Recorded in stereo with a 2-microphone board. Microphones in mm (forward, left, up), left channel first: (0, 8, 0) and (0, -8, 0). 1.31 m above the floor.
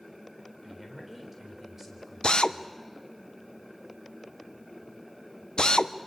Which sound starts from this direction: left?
A drill, at 2.2 s.